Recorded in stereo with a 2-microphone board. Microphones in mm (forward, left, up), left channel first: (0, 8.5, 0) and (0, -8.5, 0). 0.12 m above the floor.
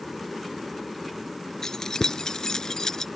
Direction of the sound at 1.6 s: 35° left (ahead or behind).